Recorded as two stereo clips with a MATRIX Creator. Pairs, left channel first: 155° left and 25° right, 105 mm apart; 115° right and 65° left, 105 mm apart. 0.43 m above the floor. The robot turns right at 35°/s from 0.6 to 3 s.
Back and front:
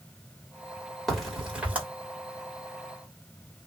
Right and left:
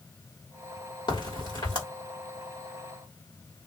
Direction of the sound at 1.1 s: 115° right.